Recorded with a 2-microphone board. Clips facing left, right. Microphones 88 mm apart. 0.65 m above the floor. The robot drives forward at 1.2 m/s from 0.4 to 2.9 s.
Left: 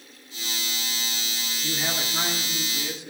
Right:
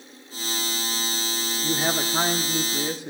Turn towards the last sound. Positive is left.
turn(degrees=-45)  # may be behind; listen again after turning